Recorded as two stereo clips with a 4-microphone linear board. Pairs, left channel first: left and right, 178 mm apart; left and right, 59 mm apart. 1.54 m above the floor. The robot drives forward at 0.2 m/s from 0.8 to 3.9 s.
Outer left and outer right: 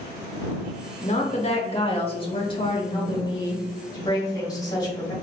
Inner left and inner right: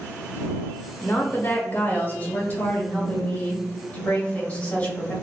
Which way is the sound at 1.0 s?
40° left (ahead or behind).